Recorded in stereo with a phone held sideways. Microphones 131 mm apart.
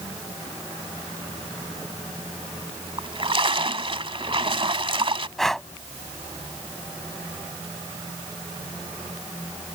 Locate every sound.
3.0 s a splash: 45° right (ahead or behind)
5.4 s breathing: 5° left (ahead or behind)